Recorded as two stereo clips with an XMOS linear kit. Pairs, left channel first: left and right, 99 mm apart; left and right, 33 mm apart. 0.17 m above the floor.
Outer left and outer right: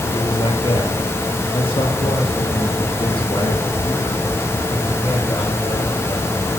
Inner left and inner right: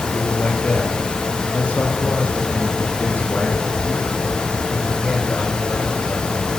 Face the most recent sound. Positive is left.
turn(degrees=75)  # may be behind; listen again after turning